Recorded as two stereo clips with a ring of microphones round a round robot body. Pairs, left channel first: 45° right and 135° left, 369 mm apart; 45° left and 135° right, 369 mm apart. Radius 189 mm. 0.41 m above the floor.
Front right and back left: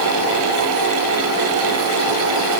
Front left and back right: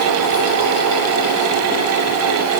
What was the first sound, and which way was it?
Only background noise.